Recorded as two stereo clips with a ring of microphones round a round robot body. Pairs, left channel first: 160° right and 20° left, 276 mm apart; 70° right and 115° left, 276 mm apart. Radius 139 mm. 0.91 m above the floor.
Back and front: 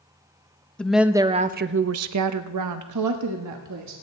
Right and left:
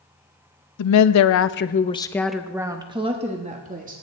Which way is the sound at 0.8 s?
70° right.